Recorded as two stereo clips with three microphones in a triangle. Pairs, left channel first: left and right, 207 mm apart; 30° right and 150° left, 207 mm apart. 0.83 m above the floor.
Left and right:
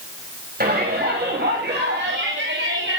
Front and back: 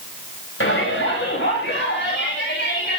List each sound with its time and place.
0.6 s a shout: 45° right, 4.5 m; by 3.0 s 65° right, 5.5 m